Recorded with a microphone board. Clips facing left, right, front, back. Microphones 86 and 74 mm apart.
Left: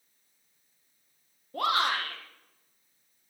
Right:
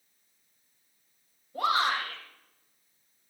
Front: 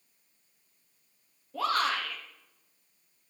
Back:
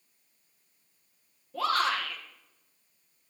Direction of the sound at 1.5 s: 85° left.